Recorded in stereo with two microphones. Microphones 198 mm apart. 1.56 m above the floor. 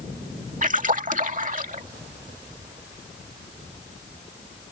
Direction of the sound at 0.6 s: 40° right (ahead or behind).